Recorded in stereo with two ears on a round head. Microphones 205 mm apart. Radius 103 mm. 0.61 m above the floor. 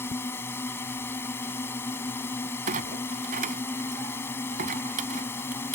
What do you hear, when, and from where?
0.0 s a drone: 10° left (ahead or behind)
2.7 s a clunk: 35° right (ahead or behind)